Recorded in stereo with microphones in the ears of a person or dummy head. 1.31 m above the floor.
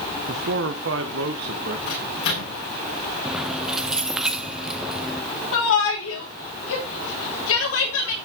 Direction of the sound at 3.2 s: 5° right (ahead or behind).